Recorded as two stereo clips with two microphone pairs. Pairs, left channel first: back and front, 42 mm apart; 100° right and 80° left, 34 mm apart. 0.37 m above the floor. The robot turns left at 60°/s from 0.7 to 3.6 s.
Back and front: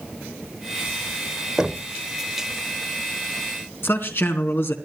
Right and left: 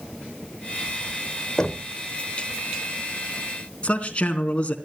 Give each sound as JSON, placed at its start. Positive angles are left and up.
{"t": 1.6, "sound": "knocking", "azimuth_deg": -60, "distance_m": 0.9}
{"t": 3.8, "sound": "a man speaking", "azimuth_deg": -155, "distance_m": 3.5}